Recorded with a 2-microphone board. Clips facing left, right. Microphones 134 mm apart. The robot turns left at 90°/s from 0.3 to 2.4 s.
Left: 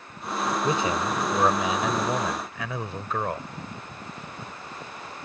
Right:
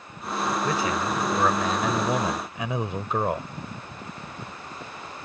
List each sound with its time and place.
0.6 s a man speaking: 25° left (ahead or behind); by 3.5 s 20° right (ahead or behind)